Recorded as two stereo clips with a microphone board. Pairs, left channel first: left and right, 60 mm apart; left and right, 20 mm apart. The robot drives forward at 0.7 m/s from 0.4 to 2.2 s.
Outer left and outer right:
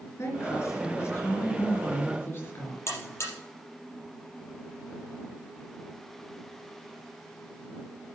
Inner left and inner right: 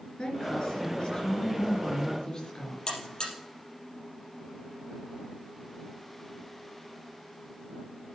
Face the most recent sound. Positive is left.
turn(degrees=45)  # may be behind; listen again after turning